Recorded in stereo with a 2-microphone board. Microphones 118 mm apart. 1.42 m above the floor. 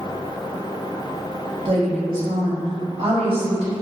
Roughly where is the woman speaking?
Right.